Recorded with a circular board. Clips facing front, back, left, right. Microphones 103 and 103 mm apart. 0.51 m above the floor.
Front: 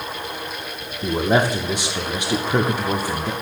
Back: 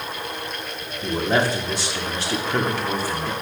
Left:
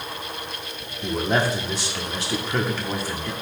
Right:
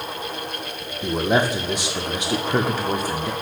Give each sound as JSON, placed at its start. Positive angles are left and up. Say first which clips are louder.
{"t": 1.0, "sound": "a man speaking", "louder": "front 2 dB, right 2 dB", "azimuth_deg": -45, "distance_m": 0.8}